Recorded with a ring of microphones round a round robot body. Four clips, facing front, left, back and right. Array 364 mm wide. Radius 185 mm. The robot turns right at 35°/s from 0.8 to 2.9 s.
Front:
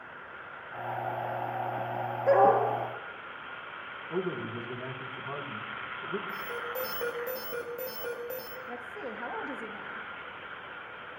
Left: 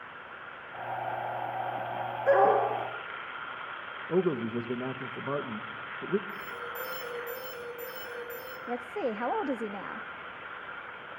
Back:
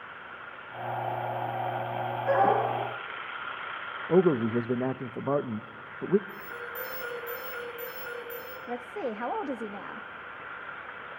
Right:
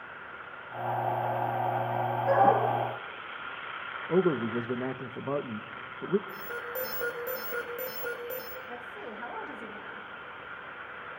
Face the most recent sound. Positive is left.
turn(degrees=115)